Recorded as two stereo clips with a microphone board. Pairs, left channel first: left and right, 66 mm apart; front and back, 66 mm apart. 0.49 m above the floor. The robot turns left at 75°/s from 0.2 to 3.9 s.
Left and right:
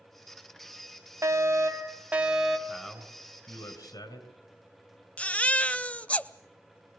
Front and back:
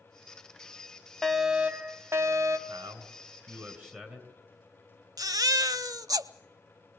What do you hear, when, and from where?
1.2 s a fire alarm: 75° right, 2.5 m; by 2.6 s straight behind, 2.5 m
2.7 s a man speaking: 160° right, 5 m; by 4.3 s 110° left, 5 m
5.2 s a baby crying: 160° left, 0.7 m